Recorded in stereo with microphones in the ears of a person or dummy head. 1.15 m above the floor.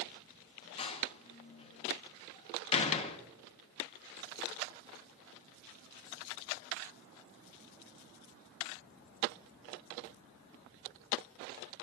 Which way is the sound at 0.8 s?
30° left (ahead or behind).